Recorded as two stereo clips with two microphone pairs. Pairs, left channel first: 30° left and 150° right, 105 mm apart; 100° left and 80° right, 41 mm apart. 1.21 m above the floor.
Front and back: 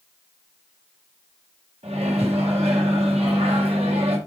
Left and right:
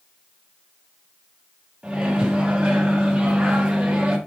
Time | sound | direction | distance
1.8 | a microwave | 150° right | 0.9 m